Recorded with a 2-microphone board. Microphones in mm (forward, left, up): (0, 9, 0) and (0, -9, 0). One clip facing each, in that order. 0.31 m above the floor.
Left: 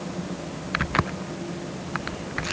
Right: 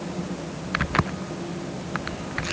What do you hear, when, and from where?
Only background noise.